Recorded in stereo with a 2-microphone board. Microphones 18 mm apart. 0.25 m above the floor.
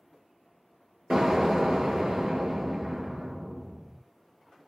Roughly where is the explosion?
Right.